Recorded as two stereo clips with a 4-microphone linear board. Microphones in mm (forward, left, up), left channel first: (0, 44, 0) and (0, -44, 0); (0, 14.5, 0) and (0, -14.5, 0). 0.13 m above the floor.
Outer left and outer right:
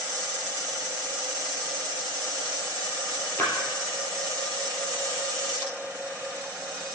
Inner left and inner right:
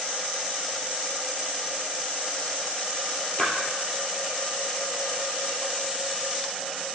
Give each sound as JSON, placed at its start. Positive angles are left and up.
{"t": 3.4, "sound": "a splash", "side_deg": 25, "distance_m": 3.0}